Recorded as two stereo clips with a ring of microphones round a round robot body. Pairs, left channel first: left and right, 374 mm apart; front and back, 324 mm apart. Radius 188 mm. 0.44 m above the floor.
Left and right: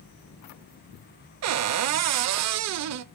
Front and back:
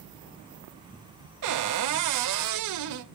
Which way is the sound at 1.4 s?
140° right.